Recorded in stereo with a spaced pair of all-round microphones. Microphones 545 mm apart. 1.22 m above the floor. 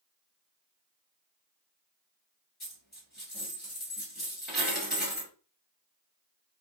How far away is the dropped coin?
About 1.6 m.